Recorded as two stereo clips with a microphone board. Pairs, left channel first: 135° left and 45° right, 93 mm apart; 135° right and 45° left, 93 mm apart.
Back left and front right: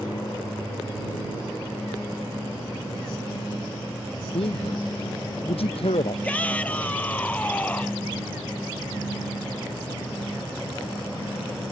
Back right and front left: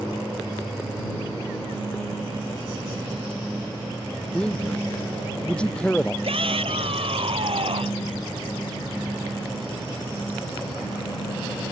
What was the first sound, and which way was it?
A man speaking, 145° left.